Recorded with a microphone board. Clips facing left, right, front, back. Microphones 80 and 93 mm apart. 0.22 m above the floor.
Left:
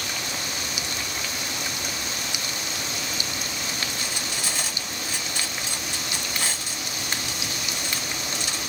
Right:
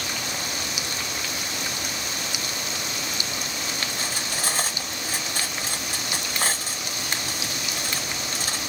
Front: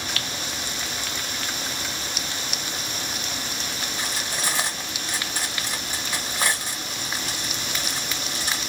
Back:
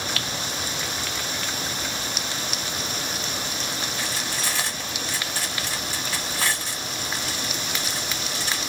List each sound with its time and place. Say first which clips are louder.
4.0 s cutlery clinking: right 2 dB, even; 65° right, 0.8 m